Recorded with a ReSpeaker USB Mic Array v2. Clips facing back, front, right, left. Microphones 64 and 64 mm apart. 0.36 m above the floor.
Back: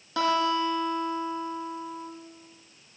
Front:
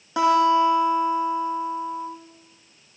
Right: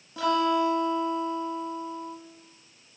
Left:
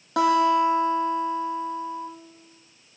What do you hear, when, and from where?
0.2 s a guitar: 70° left, 8 m